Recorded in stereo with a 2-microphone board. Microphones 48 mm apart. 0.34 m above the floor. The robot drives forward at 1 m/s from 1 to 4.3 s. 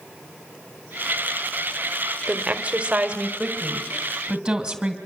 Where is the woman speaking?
30° right (ahead or behind), 1.5 m; by 5.0 s 15° right (ahead or behind), 2.5 m.